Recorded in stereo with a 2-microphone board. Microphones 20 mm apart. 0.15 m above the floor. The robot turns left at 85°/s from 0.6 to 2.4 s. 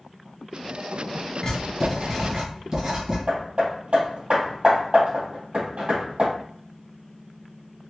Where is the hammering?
65° right (ahead or behind), 2.5 m.